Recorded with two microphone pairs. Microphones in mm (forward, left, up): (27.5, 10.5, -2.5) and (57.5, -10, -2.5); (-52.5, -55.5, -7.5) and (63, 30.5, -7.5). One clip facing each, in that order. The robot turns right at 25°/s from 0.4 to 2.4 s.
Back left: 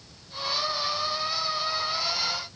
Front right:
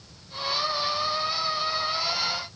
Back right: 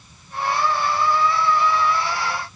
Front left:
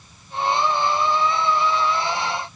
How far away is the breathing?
No breathing in this recording.